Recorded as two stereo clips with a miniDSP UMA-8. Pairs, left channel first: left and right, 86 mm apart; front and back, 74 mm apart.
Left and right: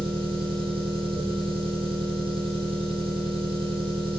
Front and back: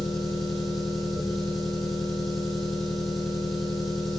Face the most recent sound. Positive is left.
turn(degrees=-90)